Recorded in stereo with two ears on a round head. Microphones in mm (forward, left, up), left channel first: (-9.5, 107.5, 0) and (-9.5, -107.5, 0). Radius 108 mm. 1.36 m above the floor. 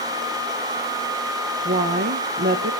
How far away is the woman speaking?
About 1.3 m.